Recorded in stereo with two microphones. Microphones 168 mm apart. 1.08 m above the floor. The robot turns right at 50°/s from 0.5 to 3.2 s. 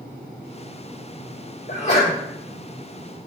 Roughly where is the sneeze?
Left.